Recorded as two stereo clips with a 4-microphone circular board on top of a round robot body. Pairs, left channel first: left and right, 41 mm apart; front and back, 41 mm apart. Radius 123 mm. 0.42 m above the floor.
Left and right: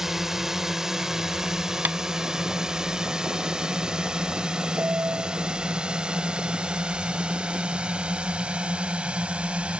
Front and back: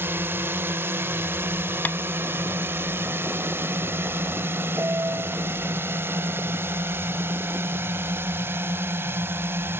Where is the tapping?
45° right.